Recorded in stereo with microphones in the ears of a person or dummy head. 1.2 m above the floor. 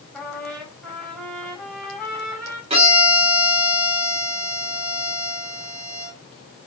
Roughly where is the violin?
Right.